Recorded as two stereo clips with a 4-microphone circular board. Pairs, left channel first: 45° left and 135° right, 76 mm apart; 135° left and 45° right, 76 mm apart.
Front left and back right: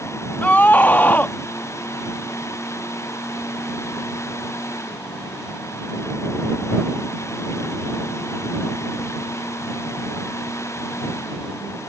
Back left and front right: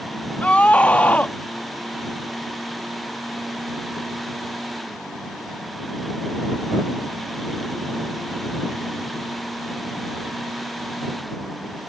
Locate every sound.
0.4 s a scream: 85° left